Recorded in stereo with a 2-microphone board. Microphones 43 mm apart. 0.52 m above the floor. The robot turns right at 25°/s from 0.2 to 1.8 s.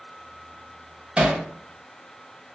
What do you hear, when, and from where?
1.2 s hammering: 30° right (ahead or behind), 0.6 m; by 1.4 s 25° right (ahead or behind), 0.6 m